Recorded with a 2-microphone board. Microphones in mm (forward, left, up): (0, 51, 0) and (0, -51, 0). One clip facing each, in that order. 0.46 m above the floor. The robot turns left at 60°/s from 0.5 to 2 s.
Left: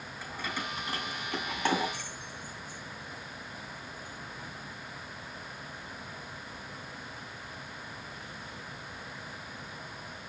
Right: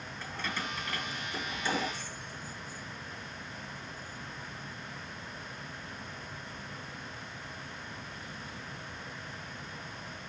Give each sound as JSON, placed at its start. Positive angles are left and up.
{"t": 0.2, "sound": "keys jangling", "side_deg": 10, "distance_m": 2.5}